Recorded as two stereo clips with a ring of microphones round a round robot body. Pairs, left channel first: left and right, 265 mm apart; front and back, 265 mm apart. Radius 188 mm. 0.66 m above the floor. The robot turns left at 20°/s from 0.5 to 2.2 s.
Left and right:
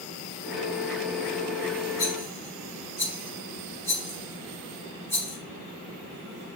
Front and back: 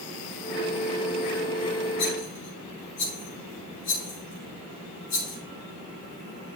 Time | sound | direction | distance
2.0 | a rattle | 15° left | 4.5 m